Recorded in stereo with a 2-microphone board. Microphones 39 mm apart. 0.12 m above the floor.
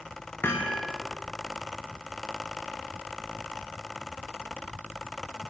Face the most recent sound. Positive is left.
turn(degrees=75)  # may be behind; listen again after turning